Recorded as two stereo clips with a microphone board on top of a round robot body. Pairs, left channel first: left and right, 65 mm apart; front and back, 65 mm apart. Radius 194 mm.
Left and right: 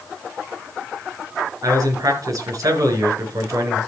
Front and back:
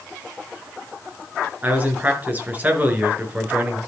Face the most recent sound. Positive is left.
turn(degrees=-120)